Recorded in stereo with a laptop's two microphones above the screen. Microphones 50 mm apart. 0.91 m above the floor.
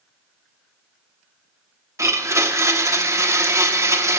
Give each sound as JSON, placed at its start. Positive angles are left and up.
{"t": 2.0, "sound": "a blender", "side_deg": -80, "distance_m": 0.7}